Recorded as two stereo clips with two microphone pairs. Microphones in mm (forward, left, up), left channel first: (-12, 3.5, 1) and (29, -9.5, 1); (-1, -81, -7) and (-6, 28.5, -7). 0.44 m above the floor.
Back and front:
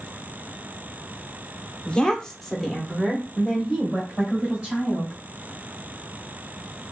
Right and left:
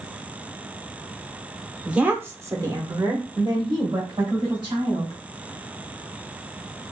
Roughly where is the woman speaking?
Behind.